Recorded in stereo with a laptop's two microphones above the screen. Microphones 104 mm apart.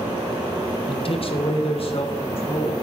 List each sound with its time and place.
0.9 s a man speaking: 55° left (ahead or behind), 0.8 m; by 2.7 s 60° left (ahead or behind), 2.5 m